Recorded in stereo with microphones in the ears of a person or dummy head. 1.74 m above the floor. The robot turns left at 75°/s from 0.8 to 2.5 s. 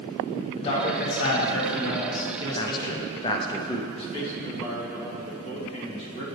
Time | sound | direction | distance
0.6 | a man speaking | 150° left | 1.6 m
2.5 | a man speaking | 30° left (ahead or behind) | 0.6 m
3.9 | a man speaking | 35° left (ahead or behind) | 2 m